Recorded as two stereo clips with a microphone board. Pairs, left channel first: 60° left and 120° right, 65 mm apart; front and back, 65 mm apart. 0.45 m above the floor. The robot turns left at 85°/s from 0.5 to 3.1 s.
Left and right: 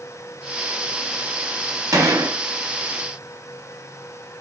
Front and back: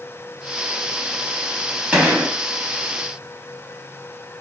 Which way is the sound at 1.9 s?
105° right.